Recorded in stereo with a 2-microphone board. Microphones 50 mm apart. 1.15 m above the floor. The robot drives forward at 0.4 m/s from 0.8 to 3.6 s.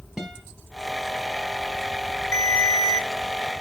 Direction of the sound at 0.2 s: 5° right (ahead or behind).